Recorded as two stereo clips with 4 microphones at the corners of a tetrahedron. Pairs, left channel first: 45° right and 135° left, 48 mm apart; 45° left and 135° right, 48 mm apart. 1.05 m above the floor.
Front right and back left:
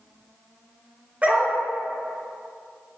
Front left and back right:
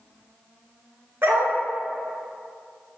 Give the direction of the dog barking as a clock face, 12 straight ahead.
5 o'clock.